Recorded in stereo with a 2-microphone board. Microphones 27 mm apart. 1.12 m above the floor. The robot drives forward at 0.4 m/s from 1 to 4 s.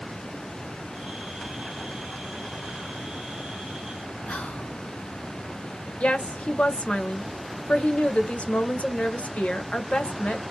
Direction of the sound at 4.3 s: 65° left (ahead or behind).